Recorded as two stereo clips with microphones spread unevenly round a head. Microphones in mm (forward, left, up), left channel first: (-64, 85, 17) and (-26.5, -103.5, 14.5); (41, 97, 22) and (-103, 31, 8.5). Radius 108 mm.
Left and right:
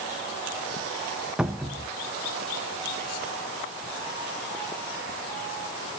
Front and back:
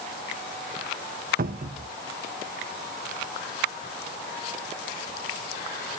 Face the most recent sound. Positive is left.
turn(degrees=-165)